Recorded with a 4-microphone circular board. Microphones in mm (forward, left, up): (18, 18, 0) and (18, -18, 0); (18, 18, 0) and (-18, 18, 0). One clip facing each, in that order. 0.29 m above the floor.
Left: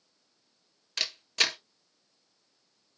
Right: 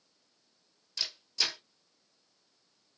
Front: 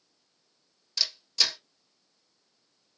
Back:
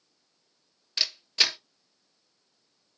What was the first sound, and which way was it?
A camera shutter, 125° left.